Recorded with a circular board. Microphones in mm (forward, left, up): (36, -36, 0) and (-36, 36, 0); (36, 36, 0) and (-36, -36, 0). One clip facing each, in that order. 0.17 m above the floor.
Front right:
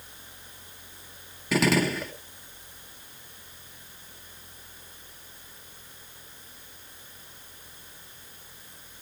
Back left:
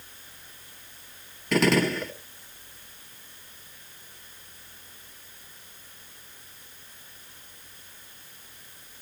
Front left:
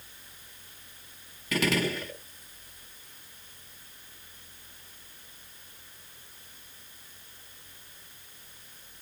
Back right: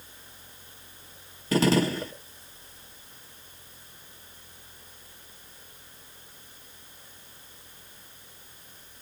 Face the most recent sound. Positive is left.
turn(degrees=-130)